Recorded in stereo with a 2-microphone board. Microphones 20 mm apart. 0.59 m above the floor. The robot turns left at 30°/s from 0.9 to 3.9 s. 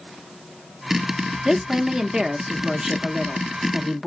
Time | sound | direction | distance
1.4 | a woman speaking | 25° right (ahead or behind) | 0.6 m